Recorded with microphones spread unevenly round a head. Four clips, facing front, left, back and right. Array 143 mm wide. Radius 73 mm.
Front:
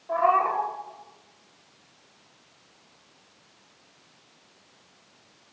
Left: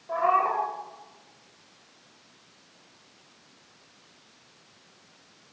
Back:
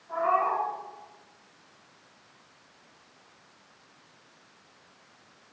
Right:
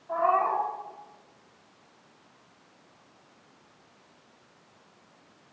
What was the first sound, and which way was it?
A cat meowing, 35° left.